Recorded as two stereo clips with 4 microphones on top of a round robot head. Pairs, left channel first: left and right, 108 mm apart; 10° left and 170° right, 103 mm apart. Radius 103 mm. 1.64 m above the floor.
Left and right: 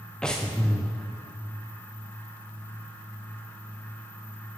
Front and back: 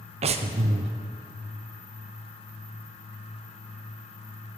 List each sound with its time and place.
0.2 s breathing: 175° left, 0.6 m